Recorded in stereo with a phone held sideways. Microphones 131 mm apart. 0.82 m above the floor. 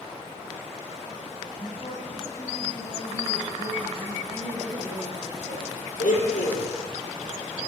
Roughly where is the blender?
Left.